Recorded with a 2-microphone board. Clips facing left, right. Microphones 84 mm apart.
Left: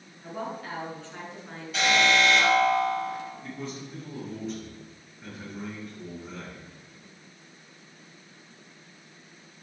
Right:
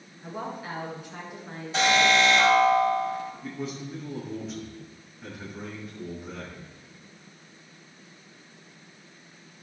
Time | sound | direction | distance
0.2 | a woman speaking | 10° right (ahead or behind) | 7 m
1.7 | an alarm | 25° right (ahead or behind) | 7 m
3.4 | a man speaking | centre (ahead or behind) | 8 m